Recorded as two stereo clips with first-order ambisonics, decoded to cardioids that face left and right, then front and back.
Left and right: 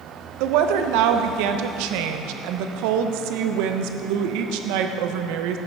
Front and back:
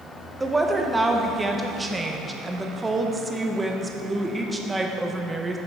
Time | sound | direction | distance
0.4 | a woman speaking | 100° right | 0.7 m